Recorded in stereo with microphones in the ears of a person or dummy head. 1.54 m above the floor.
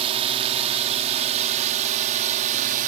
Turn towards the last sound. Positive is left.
turn(degrees=-40)  # may be behind; listen again after turning